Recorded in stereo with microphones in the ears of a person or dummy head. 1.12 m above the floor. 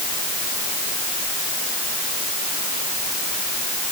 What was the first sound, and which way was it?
Only background noise.